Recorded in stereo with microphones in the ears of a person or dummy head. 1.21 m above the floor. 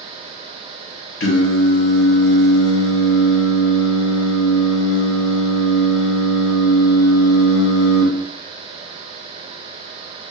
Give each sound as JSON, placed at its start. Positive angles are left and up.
{"t": 1.2, "sound": "singing", "side_deg": 65, "distance_m": 1.1}